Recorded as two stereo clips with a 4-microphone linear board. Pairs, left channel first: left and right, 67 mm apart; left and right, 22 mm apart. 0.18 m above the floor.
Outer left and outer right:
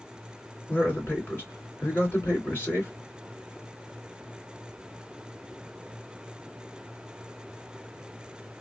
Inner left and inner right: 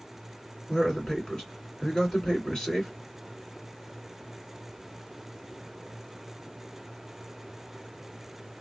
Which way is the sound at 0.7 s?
35° left (ahead or behind).